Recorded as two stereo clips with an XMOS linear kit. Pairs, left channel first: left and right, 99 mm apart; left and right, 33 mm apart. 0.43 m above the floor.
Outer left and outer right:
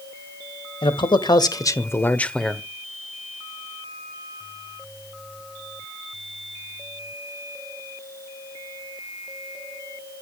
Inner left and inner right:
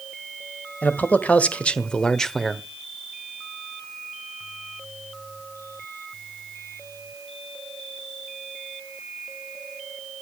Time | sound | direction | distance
0.8 | a man speaking | 55° left (ahead or behind) | 1.8 m